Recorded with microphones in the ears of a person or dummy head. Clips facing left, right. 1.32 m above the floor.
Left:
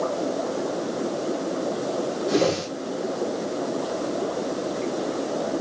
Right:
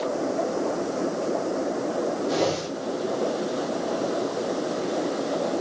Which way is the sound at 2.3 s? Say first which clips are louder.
Left 3 dB; 35° left (ahead or behind).